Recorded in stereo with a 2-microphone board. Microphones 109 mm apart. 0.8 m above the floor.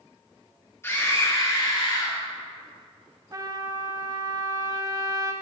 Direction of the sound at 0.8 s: 25° left (ahead or behind).